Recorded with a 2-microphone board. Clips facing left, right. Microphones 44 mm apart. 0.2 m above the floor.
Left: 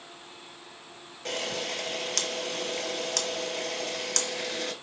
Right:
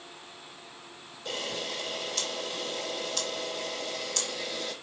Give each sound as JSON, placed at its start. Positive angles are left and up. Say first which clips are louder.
{"t": 1.2, "sound": "a camera shutter", "louder": "left 2 dB", "side_deg": 65, "distance_m": 1.4}